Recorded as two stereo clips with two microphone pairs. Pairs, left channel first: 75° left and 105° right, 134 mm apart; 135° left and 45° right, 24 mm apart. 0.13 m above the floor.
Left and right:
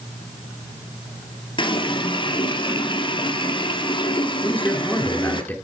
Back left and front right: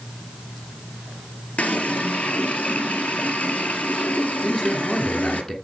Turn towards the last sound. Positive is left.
turn(degrees=135)